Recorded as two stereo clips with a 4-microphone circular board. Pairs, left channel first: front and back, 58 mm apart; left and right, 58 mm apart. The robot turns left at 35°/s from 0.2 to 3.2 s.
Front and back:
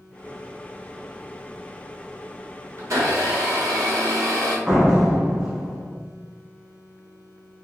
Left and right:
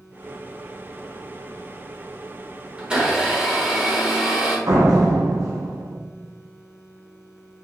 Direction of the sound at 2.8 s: 155° right.